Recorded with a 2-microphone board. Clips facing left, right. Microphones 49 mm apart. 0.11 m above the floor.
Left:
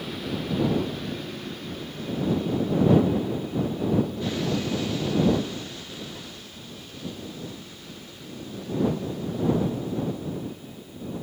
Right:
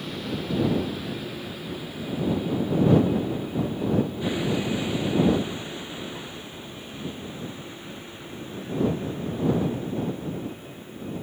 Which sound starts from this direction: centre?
A vehicle, at 0.0 s.